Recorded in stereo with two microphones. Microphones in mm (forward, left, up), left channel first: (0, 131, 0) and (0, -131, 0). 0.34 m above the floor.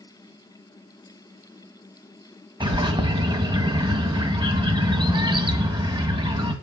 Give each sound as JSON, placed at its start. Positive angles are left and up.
{"t": 2.6, "sound": "a bird", "side_deg": -20, "distance_m": 1.5}